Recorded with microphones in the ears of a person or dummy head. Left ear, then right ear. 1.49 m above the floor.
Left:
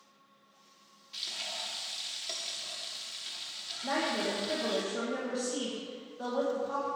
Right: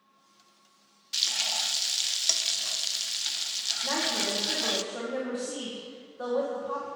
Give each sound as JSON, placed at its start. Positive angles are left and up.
{"t": 1.1, "sound": "frying", "side_deg": -45, "distance_m": 0.6}
{"t": 3.8, "sound": "a woman speaking", "side_deg": -20, "distance_m": 1.6}